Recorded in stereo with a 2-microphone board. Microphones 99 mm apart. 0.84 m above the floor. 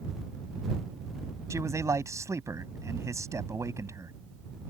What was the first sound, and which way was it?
A man speaking, 30° right (ahead or behind).